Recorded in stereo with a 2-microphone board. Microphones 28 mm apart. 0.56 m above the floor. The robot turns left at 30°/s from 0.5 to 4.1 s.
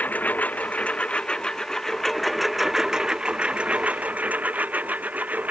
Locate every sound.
0.0 s a lawn mower: 65° left (ahead or behind); by 5.5 s 60° right (ahead or behind)